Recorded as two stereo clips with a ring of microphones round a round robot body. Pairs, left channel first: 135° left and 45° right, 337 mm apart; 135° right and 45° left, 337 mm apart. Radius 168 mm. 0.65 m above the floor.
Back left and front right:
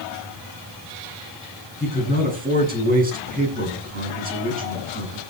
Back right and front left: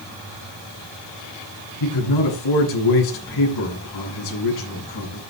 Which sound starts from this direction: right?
A man speaking, at 1.8 s.